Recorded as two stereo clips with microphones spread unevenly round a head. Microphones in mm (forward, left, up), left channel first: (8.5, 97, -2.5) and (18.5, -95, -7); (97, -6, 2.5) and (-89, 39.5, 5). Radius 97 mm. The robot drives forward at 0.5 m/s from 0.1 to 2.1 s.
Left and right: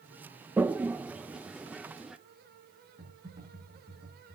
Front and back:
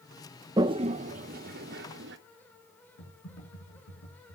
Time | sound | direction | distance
0.6 | a toilet flushing | 160° right | 0.7 m
3.0 | typing on a keyboard | 20° right | 9 m